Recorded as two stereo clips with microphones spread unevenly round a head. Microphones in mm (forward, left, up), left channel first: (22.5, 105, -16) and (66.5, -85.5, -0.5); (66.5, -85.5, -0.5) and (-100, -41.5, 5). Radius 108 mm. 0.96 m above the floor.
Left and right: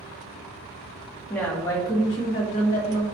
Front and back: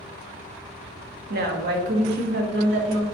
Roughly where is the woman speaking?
Behind.